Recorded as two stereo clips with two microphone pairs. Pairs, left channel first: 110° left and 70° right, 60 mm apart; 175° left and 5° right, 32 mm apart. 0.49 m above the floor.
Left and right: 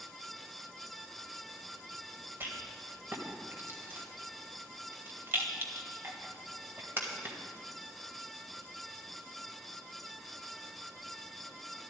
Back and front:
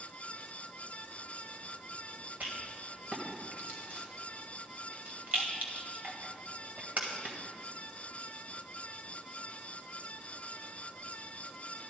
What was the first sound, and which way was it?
A rattle, 25° right.